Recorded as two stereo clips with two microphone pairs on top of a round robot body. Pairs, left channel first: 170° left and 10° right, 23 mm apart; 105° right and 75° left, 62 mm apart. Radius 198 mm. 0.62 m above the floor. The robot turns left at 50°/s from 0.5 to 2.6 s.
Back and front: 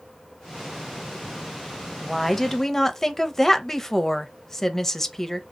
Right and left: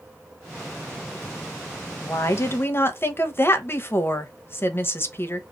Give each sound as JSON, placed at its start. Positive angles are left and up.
{"t": 2.0, "sound": "a woman speaking", "azimuth_deg": -110, "distance_m": 0.9}